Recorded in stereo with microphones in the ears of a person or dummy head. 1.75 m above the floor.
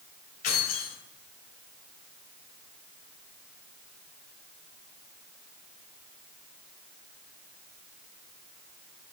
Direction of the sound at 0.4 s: 50° left (ahead or behind).